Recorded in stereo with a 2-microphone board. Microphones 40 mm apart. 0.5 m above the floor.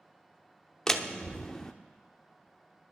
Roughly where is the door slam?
Centre.